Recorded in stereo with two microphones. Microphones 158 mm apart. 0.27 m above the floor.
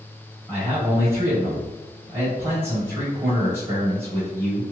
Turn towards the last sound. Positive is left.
turn(degrees=-15)  # may be behind; listen again after turning